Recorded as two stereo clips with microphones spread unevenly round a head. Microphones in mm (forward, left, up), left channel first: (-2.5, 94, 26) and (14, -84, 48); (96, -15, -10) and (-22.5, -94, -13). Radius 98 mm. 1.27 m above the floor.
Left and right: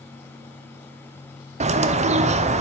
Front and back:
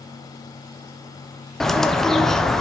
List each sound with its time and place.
1.6 s a bird: 55° right, 0.5 m